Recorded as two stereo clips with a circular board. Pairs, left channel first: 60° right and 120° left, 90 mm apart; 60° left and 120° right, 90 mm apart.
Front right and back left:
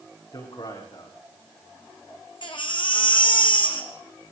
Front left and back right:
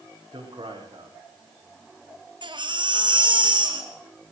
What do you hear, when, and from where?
0.3 s a man speaking: 85° right, 8.5 m
2.4 s a baby crying: 85° right, 3.5 m